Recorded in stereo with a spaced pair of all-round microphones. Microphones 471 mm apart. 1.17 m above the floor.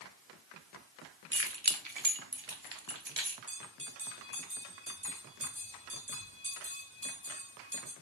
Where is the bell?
30° right (ahead or behind), 3 m.